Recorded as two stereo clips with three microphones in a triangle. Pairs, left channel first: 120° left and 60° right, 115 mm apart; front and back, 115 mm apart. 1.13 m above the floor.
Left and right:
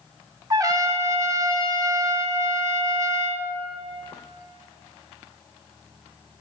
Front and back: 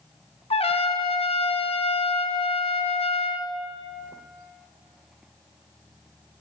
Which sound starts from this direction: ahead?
A trumpet, at 0.5 s.